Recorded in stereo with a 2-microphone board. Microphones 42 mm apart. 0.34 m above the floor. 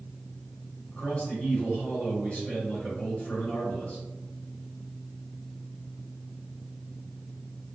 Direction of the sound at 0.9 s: 30° left (ahead or behind).